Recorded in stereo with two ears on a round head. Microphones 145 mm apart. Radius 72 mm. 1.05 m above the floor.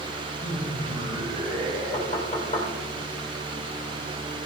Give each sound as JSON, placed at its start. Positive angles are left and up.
{"t": 0.4, "sound": "laughter", "side_deg": -30, "distance_m": 5.5}
{"t": 1.9, "sound": "knocking", "side_deg": 40, "distance_m": 3.0}